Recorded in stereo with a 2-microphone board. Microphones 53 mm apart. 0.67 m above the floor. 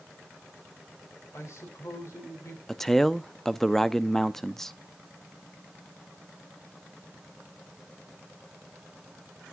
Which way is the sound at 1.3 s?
65° left (ahead or behind).